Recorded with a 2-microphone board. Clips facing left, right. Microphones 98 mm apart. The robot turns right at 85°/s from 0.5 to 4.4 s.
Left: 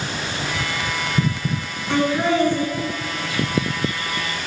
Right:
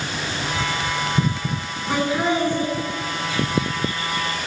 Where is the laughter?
10° right (ahead or behind), 1.4 m; by 2.7 s 20° right (ahead or behind), 1.4 m.